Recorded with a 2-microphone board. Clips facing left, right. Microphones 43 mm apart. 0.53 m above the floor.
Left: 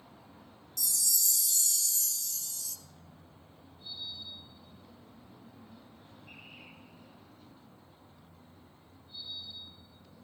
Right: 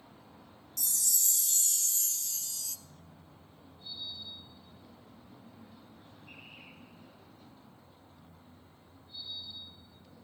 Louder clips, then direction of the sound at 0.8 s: Left 1 dB; 45° right (ahead or behind).